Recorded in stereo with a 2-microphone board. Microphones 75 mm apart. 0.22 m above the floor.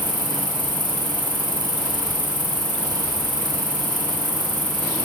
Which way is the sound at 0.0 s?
75° right (ahead or behind).